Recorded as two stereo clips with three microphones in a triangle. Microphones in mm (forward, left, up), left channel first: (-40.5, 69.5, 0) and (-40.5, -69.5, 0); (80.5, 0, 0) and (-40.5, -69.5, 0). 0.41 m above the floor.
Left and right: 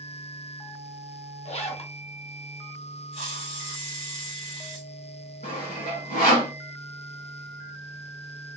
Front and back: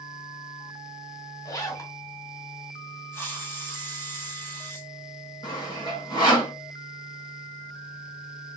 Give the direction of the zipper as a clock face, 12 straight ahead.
9 o'clock.